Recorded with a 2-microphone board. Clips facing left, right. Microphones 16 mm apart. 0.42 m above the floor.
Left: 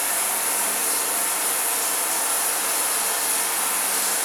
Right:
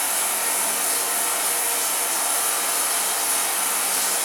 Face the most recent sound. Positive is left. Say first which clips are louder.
# right 1 dB
turn(degrees=-60)  # may be behind; listen again after turning